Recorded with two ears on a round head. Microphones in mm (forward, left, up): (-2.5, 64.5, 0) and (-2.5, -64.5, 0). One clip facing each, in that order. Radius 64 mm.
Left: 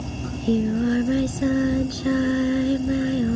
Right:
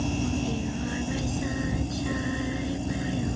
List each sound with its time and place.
0.2 s singing: 60° left (ahead or behind)